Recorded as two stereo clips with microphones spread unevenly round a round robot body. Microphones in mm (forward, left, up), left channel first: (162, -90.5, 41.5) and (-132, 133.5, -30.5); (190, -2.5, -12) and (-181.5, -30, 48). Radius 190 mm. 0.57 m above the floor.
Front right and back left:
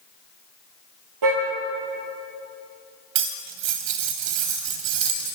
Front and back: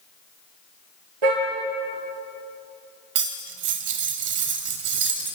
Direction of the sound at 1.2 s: 175° right.